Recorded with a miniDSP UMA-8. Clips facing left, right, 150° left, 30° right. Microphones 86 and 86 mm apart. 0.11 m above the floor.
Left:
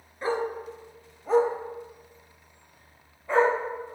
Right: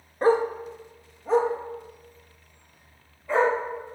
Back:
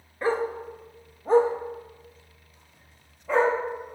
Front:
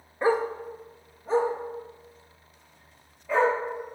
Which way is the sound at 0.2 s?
95° right.